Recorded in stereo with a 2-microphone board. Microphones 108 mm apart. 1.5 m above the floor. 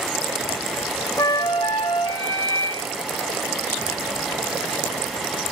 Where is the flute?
50° left (ahead or behind), 1.8 m.